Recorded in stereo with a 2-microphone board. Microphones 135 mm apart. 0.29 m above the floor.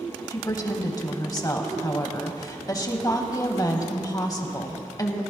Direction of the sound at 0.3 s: 25° left (ahead or behind).